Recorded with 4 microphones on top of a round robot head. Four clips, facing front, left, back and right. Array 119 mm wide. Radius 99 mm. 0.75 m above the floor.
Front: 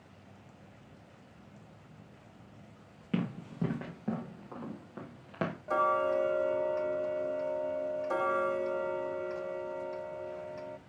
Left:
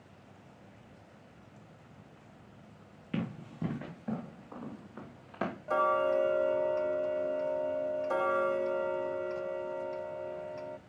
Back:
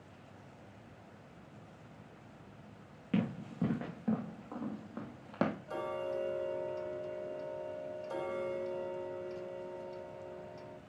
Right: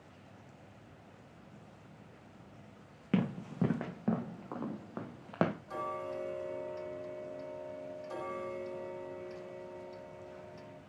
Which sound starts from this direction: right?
Running footsteps, at 3.1 s.